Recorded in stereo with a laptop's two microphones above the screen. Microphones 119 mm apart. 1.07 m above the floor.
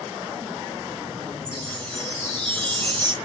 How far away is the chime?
About 3 m.